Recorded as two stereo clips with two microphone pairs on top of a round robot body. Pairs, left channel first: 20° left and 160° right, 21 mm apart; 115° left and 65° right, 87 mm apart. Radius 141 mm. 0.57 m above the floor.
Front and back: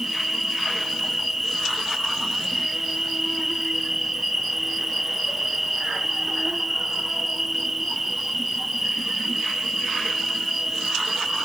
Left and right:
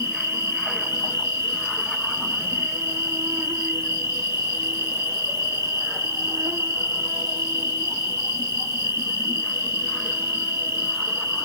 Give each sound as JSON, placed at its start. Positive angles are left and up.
{"t": 0.0, "sound": "an insect", "azimuth_deg": -100, "distance_m": 1.2}